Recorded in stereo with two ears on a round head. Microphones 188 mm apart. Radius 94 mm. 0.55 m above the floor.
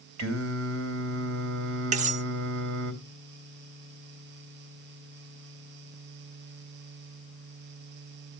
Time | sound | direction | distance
0.2 | singing | 65° right (ahead or behind) | 3 m
1.9 | cutlery clinking | 35° right (ahead or behind) | 0.7 m